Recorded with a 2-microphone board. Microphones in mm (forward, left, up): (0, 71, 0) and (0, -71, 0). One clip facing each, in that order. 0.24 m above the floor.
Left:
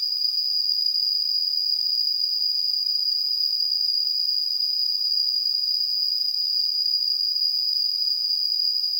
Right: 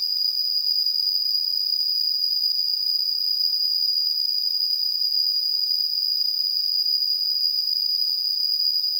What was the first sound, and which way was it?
An insect, 30° right (ahead or behind).